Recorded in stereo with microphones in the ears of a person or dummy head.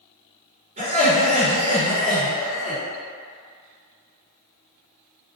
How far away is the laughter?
About 1.4 m.